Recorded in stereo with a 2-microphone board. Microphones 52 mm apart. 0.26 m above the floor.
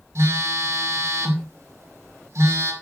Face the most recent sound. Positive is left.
turn(degrees=-70)  # may be behind; listen again after turning